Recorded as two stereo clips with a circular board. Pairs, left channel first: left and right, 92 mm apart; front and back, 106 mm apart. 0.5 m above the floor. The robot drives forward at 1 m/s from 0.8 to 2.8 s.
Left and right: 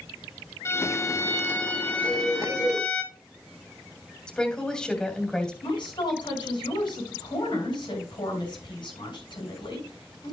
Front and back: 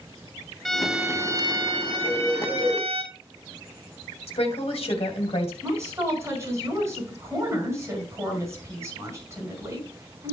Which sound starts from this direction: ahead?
A woman speaking, at 4.3 s.